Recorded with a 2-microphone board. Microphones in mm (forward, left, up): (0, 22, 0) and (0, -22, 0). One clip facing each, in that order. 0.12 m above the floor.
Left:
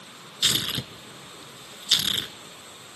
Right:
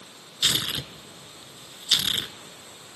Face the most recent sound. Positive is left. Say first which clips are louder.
# even
turn(degrees=-5)  # may be behind; listen again after turning